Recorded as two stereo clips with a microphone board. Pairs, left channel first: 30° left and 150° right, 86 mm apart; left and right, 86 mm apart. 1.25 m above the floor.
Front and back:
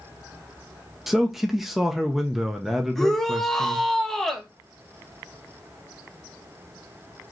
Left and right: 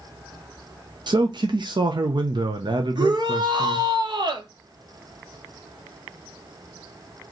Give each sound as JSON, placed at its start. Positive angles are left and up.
{"t": 1.1, "sound": "a man speaking", "azimuth_deg": -65, "distance_m": 0.7}
{"t": 3.0, "sound": "a shout", "azimuth_deg": -55, "distance_m": 1.3}